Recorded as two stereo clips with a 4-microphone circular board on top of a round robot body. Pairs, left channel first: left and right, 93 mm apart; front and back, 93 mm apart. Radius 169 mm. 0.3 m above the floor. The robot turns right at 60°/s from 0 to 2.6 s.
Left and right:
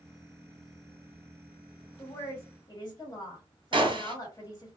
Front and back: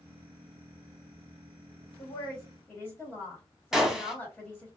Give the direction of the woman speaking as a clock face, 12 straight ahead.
11 o'clock.